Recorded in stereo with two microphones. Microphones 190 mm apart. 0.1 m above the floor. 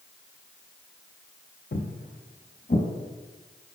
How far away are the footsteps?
About 0.5 m.